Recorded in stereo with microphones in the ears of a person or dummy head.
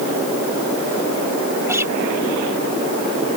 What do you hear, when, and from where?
1.7 s a guitar: 5° right (ahead or behind)